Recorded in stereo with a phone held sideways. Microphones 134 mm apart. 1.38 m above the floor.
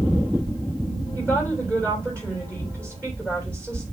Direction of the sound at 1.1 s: 15° left (ahead or behind).